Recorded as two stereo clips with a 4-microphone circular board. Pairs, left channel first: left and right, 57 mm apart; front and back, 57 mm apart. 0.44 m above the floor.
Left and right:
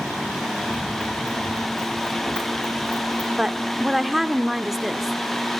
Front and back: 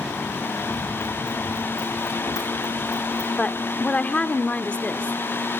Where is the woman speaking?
15° right, 0.8 m.